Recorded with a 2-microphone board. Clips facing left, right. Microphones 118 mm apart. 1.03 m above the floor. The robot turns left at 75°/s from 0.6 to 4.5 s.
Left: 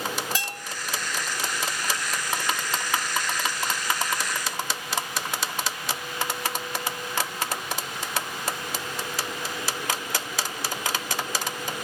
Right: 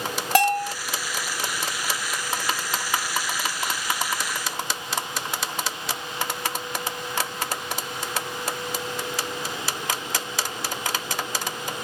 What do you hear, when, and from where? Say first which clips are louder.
0.3 s a bell: right 14 dB; 70° right (ahead or behind); by 0.7 s 60° right (ahead or behind)